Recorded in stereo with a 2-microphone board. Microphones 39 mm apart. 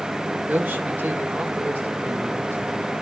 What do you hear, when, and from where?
0.5 s a man speaking: 50° right (ahead or behind), 1.7 m; by 2.9 s 75° right (ahead or behind), 3 m